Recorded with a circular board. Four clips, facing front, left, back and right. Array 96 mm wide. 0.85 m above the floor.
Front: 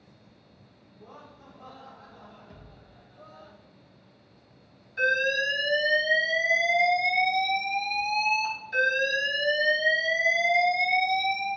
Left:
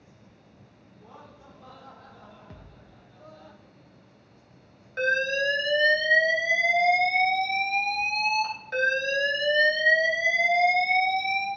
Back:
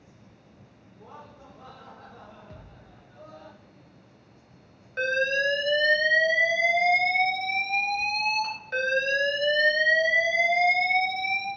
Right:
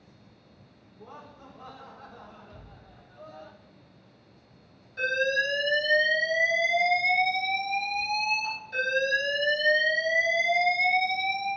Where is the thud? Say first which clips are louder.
Even, back 2 dB; 105° left, 1.0 m.